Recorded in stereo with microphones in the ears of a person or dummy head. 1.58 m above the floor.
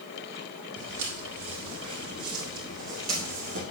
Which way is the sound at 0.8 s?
65° right (ahead or behind).